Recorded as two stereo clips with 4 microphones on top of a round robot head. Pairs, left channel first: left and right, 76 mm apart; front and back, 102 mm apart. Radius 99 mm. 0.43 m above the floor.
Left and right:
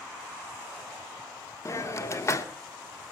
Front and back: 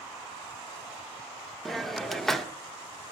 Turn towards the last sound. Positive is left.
turn(degrees=85)